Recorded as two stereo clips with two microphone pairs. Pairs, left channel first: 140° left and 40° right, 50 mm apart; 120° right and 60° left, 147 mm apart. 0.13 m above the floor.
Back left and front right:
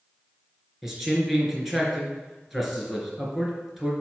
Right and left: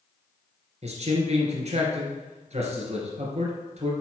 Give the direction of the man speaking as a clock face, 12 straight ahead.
11 o'clock.